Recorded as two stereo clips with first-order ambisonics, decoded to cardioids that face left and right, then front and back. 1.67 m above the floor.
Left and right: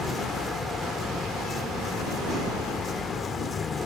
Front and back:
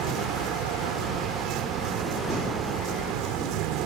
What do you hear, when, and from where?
0.0 s a vehicle: 160° left